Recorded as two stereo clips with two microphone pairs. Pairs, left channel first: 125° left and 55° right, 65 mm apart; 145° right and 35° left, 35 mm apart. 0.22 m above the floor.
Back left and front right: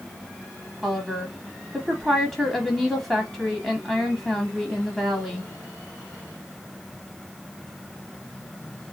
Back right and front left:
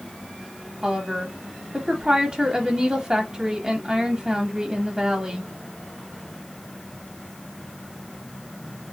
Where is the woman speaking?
45° left, 1.0 m.